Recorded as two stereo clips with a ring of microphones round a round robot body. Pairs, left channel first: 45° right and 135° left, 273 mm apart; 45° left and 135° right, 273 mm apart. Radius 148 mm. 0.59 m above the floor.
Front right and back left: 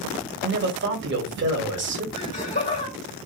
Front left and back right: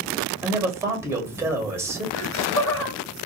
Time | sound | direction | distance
0.4 | a man speaking | 150° left | 1.1 m
2.1 | laughter | 15° left | 1.8 m